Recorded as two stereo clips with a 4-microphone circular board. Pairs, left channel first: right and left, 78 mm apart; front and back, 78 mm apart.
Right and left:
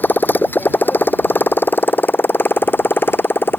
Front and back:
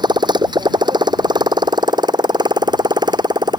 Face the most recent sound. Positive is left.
turn(degrees=-155)